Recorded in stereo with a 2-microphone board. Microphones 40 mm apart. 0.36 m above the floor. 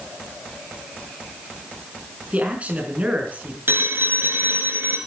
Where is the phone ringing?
65° right (ahead or behind), 3 m.